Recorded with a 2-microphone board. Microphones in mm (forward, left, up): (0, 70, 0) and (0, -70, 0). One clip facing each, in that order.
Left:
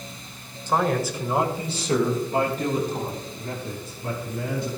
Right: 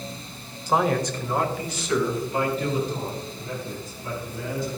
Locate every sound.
0.7 s a man speaking: 10° right (ahead or behind), 1.1 m; by 4.7 s 65° left (ahead or behind), 3.5 m